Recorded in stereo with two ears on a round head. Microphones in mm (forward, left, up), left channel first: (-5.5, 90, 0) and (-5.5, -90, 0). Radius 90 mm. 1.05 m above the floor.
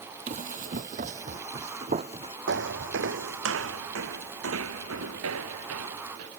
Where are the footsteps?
60° right (ahead or behind); by 6.3 s 85° right.